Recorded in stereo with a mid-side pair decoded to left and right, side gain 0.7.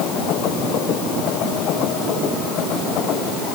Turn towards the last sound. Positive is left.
No sound to turn to.